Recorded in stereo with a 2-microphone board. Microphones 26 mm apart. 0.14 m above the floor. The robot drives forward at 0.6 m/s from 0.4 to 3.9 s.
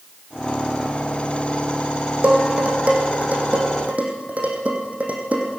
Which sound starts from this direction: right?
Dishes clattering, at 2.2 s.